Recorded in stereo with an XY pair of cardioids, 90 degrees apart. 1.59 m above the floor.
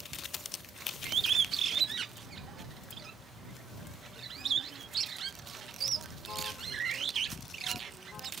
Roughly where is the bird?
Ahead right.